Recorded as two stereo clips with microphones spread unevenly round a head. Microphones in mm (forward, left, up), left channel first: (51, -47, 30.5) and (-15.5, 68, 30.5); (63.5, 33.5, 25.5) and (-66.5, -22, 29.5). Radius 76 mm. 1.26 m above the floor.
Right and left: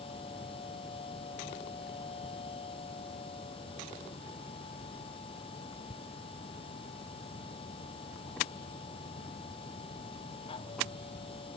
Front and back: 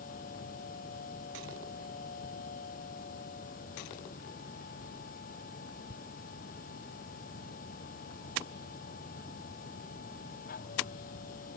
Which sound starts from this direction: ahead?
A machine running, at 0.0 s.